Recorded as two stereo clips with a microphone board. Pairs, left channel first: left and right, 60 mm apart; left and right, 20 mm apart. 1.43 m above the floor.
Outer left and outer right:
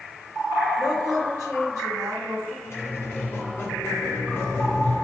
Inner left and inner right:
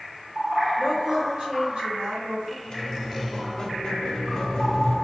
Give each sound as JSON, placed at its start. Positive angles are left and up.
{"t": 0.8, "sound": "a woman speaking", "side_deg": -85, "distance_m": 2.0}
{"t": 2.6, "sound": "a squeak", "side_deg": 45, "distance_m": 0.9}